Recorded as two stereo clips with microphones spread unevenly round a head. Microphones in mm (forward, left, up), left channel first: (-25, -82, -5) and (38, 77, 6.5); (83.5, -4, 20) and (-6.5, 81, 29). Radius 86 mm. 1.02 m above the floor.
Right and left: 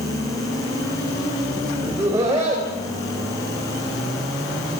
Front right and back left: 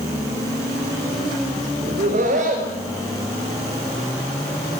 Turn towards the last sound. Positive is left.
turn(degrees=140)